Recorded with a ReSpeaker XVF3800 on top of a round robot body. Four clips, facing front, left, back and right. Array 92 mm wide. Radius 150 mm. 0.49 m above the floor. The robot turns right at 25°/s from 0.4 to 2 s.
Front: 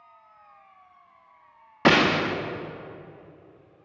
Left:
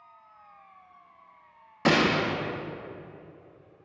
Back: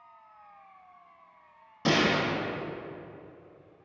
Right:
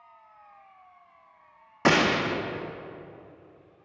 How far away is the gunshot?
About 0.6 m.